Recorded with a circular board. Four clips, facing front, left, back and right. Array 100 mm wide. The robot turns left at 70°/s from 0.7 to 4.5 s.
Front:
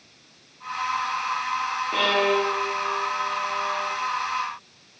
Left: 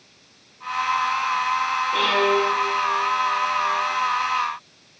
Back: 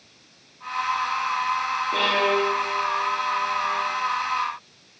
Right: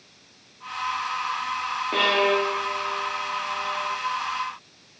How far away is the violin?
About 2.5 m.